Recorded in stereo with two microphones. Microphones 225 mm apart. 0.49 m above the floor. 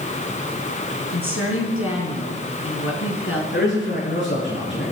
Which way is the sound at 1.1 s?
70° left (ahead or behind).